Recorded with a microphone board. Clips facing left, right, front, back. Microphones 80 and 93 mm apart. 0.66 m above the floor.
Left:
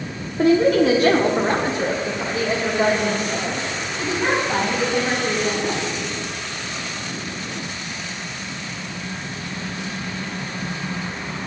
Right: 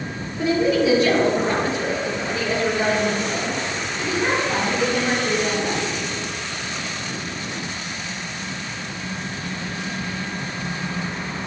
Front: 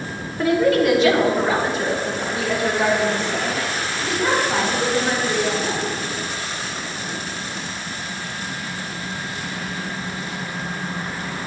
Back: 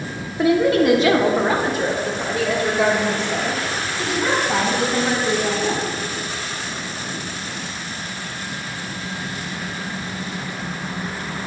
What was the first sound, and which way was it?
A woman speaking, 105° left.